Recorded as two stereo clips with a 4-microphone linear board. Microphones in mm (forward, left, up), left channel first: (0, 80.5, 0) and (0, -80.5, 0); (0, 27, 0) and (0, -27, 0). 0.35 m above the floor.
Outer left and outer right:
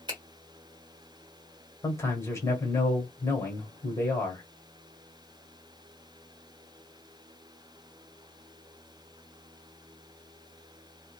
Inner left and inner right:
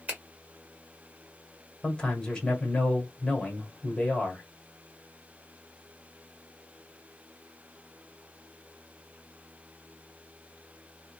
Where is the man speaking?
15° left (ahead or behind), 1.4 m.